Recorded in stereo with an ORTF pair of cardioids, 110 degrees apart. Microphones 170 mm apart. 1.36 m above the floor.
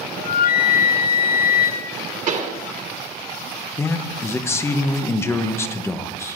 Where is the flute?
65° left, 0.9 m.